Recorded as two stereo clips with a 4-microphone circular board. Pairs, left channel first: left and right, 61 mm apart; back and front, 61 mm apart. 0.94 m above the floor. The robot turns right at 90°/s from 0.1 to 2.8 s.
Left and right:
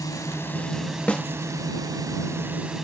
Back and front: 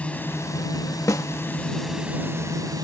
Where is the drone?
110° left; by 2.9 s 5° right.